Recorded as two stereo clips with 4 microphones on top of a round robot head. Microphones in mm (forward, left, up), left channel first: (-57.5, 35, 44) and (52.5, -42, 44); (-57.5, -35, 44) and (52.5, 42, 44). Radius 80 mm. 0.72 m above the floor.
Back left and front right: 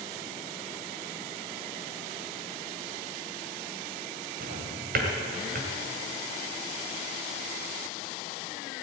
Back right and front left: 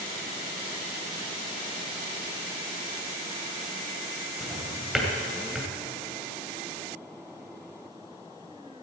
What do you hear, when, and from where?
4.4 s a drawer: 50° right, 2 m